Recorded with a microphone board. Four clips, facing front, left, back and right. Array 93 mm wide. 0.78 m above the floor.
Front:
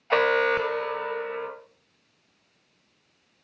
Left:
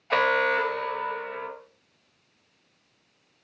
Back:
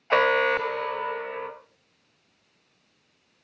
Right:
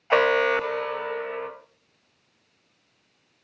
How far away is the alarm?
About 0.9 m.